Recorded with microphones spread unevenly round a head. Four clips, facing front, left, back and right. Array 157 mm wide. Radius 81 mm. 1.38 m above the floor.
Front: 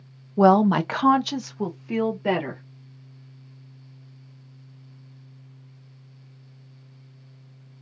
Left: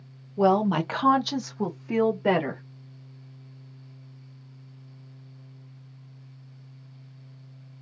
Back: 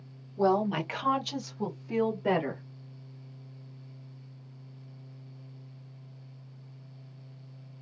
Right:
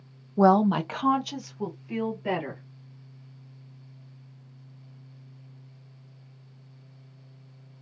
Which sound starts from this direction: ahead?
A woman speaking, at 0.4 s.